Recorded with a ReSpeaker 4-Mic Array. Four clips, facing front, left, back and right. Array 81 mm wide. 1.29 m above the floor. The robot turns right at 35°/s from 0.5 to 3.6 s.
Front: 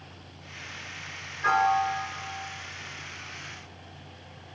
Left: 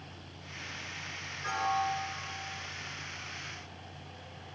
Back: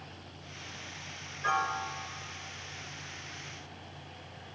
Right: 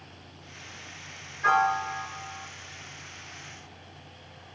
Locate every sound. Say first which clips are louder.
1.4 s a piano: right 7 dB, front 8 dB; 50° right, 3.5 m; by 2.5 s 15° right, 3.5 m